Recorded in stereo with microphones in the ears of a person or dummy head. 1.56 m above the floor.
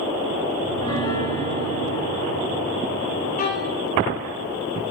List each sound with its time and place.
0.6 s a piano: 20° left (ahead or behind), 4.5 m
3.4 s a violin: 45° left (ahead or behind), 4 m